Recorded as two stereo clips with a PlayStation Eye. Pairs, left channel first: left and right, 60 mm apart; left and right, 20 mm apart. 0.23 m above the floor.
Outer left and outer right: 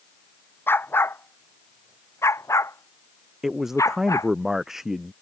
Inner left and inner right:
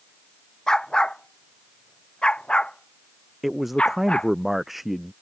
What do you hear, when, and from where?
0.7 s a dog barking: 40° left (ahead or behind); by 4.3 s 65° left (ahead or behind)
3.4 s a man speaking: 5° right (ahead or behind)